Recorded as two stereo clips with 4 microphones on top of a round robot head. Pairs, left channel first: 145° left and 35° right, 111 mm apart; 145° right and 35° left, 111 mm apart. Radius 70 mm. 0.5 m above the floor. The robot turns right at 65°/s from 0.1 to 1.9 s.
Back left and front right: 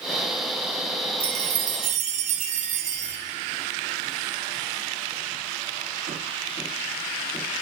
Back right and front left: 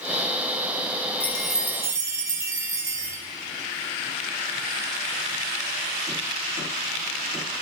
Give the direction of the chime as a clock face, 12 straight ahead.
2 o'clock.